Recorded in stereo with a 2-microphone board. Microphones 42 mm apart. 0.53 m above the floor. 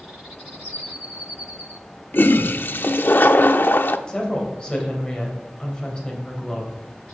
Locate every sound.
2.1 s a toilet flushing: 55° left (ahead or behind), 0.6 m
4.1 s a woman speaking: 20° left (ahead or behind), 3 m